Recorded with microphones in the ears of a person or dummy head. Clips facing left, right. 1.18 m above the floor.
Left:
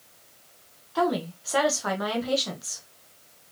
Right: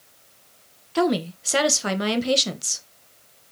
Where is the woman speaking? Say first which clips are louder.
Right 4 dB; 40° right (ahead or behind), 1.1 m.